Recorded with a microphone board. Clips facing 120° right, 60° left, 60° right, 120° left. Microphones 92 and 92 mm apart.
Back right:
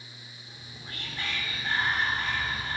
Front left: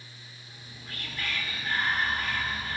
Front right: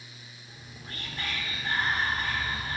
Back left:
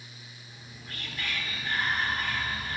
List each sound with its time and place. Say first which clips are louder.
0.5 s whispering: back right 1 dB, front right 2 dB; 80° right, 1.4 m